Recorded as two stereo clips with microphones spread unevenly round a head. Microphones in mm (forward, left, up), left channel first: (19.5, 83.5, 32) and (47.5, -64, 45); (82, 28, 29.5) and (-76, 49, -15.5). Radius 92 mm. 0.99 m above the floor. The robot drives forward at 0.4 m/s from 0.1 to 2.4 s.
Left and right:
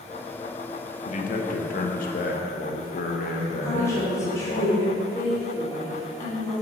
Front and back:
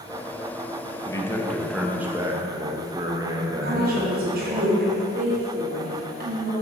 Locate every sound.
1.1 s a man speaking: 70° left, 0.8 m; by 4.6 s 110° left, 0.8 m
3.6 s a woman speaking: 170° left, 2 m